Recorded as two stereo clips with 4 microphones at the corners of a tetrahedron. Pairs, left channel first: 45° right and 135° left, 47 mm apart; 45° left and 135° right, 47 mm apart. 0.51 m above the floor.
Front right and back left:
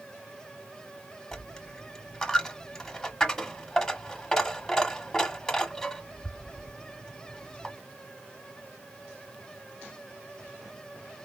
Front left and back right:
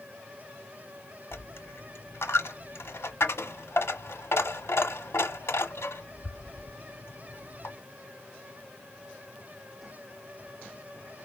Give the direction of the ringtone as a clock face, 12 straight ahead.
I don't hear a ringtone.